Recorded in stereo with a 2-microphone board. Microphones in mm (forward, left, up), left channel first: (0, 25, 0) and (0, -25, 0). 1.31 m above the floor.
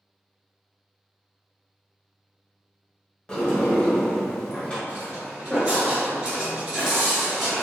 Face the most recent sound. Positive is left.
turn(degrees=-5)  # may be behind; listen again after turning